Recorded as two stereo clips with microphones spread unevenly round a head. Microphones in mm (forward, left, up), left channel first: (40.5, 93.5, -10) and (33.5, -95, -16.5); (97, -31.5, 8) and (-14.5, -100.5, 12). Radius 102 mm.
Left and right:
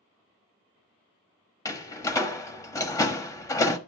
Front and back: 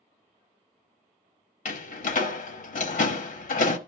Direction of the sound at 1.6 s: 15° left.